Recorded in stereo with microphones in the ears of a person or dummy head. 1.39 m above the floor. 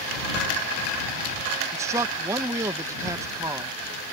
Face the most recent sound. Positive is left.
turn(degrees=-15)  # may be behind; listen again after turning